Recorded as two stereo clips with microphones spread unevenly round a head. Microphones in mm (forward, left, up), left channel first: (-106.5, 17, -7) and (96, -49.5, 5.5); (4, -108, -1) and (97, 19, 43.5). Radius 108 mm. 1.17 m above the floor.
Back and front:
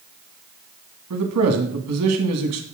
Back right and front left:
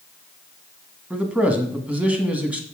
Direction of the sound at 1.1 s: 35° right.